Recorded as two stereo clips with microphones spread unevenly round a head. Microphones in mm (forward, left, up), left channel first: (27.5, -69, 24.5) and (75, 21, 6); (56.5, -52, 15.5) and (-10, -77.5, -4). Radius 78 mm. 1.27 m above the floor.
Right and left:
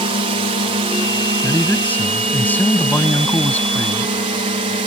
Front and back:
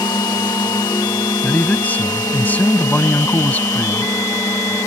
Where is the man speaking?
45° right.